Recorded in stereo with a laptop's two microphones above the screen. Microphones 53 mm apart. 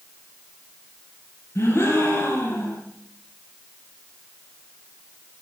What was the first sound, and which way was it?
A gasp, 45° left (ahead or behind).